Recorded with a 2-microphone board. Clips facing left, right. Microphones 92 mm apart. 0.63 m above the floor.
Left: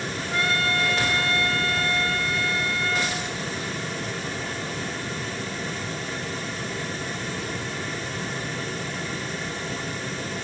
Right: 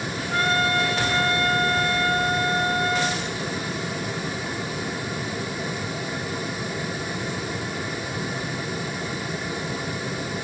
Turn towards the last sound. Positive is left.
turn(degrees=-30)  # may be behind; listen again after turning